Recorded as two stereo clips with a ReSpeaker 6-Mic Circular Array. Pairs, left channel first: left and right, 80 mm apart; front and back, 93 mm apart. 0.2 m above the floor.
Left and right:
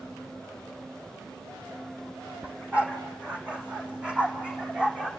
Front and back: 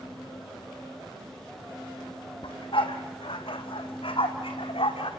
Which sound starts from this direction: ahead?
A dog barking, at 2.4 s.